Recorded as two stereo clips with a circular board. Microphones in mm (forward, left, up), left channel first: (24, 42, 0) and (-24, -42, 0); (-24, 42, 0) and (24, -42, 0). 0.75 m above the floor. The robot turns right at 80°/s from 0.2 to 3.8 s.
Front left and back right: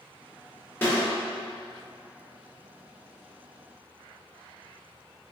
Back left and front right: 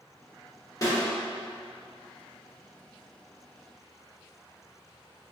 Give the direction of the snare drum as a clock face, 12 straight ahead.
8 o'clock.